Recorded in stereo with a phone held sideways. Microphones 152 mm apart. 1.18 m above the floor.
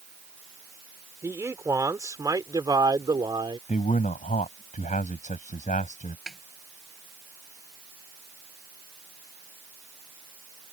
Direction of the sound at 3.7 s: 55° left (ahead or behind).